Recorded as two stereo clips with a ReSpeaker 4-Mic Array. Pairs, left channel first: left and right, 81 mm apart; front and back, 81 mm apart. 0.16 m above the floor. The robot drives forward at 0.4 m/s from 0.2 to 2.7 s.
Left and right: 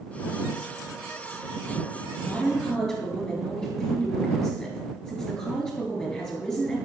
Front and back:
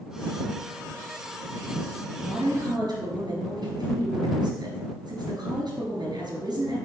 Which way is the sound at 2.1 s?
175° left.